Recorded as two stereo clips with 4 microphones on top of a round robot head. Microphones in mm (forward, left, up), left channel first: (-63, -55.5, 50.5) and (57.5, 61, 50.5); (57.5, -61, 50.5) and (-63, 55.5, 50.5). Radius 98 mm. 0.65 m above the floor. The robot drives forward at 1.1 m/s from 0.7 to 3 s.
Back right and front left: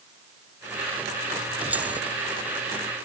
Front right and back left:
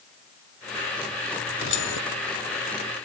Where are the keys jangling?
35° right; by 2.0 s 40° right.